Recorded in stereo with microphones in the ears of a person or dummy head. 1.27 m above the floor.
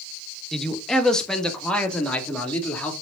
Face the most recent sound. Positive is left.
turn(degrees=10)  # may be behind; listen again after turning